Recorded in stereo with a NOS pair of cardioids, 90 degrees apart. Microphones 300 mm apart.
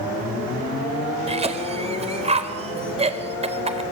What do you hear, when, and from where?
1.3 s a cough: 20° right, 4.5 m